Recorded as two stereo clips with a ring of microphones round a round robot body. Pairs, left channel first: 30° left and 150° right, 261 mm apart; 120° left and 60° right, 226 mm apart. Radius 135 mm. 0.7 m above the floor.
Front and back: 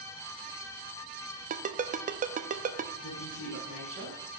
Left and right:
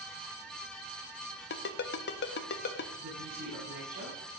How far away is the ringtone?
About 0.8 m.